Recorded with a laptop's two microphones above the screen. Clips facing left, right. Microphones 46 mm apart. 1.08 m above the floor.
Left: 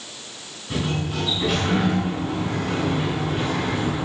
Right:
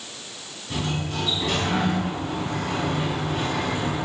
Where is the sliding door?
10° left (ahead or behind), 9.5 m.